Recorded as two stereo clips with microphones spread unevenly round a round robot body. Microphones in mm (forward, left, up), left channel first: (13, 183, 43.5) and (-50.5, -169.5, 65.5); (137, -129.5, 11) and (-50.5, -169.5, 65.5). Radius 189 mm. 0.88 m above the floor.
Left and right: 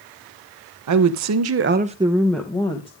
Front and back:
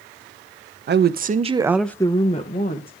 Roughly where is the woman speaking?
Behind right.